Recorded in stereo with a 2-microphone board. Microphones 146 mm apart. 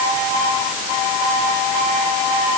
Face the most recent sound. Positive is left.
No sound to turn to.